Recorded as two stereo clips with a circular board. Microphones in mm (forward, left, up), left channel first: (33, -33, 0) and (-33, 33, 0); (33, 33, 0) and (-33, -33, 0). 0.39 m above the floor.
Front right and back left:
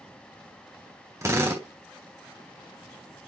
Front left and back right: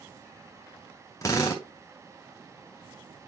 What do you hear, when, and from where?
1.2 s a drill: 85° left, 1.9 m